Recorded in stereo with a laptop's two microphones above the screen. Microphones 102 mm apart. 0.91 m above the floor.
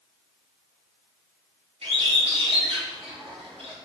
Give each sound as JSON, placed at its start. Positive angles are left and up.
{"t": 1.8, "sound": "a bird", "side_deg": -75, "distance_m": 2.5}